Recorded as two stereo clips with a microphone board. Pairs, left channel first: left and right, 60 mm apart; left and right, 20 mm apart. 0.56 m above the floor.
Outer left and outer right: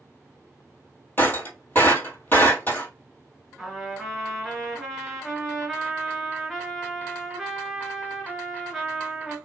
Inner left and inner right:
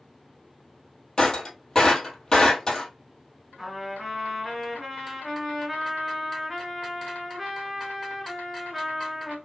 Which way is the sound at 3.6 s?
5° right (ahead or behind).